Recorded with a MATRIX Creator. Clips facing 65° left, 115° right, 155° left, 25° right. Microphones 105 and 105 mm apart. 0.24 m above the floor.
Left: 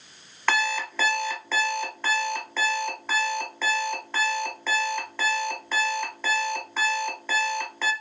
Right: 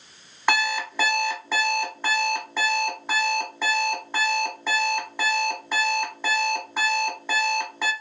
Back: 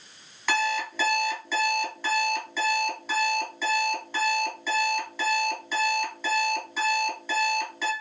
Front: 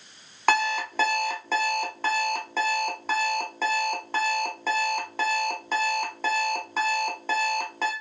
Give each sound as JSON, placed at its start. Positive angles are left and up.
{"t": 0.5, "sound": "an alarm clock", "azimuth_deg": -40, "distance_m": 1.1}